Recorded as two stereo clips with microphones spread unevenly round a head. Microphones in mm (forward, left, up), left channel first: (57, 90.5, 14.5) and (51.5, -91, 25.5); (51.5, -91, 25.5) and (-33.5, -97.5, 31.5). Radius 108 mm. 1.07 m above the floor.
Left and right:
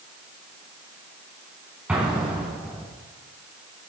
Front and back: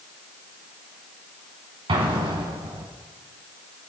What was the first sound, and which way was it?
An explosion, 175° right.